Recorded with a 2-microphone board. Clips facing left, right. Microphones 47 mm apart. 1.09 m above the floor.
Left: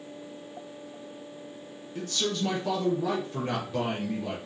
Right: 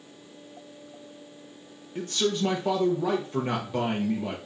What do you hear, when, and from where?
1.9 s a man speaking: 20° right (ahead or behind), 0.6 m